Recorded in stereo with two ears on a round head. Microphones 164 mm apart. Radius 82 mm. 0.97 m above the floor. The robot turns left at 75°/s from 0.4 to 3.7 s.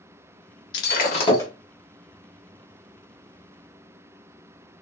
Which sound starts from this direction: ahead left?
Breaking glass, at 0.7 s.